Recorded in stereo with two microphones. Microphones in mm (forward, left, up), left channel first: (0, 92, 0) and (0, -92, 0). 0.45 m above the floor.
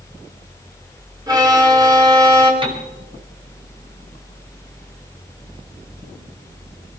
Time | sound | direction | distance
1.3 | a violin | 20° right (ahead or behind) | 4 m
2.6 | a piano | 30° right (ahead or behind) | 4.5 m